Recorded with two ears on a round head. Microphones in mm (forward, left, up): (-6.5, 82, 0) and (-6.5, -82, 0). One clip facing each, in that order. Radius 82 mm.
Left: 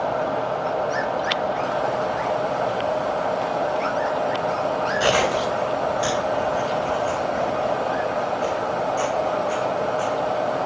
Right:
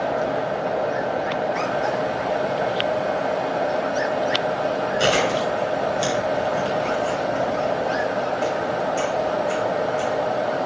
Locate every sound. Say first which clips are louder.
5.0 s chewing: even; 75° right (ahead or behind), 5 m